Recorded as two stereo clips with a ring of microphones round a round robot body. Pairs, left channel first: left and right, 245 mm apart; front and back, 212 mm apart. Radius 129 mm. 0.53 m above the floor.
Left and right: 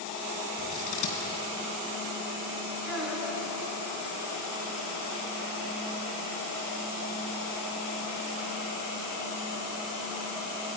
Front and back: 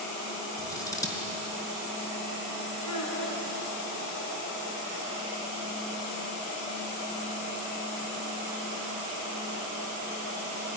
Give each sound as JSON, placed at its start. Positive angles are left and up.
{"t": 0.6, "sound": "scissors", "azimuth_deg": 75, "distance_m": 3.5}
{"t": 2.9, "sound": "a child speaking", "azimuth_deg": 0, "distance_m": 4.5}